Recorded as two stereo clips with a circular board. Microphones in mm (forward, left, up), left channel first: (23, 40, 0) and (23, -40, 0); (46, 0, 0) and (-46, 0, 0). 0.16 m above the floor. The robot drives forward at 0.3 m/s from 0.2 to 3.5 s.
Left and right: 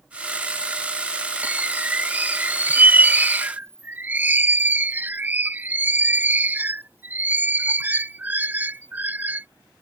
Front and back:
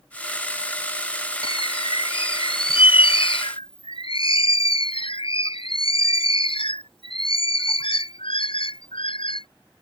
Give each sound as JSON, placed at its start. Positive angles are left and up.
{"t": 1.4, "sound": "a bird", "azimuth_deg": -20}